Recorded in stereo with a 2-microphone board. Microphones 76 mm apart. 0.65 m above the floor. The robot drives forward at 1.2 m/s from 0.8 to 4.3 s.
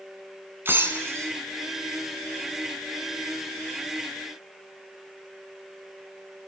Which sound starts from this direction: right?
Breaking glass, at 0.7 s.